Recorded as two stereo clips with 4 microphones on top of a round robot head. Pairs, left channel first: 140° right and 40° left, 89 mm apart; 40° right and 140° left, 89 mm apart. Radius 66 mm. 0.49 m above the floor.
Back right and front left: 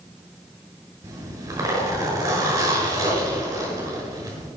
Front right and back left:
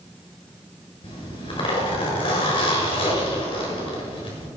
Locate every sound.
1.0 s a zipper: 15° right, 6 m